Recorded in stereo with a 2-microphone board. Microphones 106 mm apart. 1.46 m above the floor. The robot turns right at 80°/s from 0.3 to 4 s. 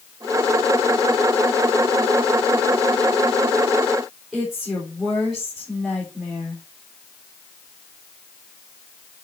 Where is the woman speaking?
5° right (ahead or behind), 4 m.